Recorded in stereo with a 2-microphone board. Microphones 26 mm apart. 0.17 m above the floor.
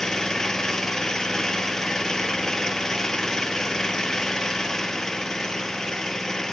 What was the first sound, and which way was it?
An engine running, 25° left (ahead or behind).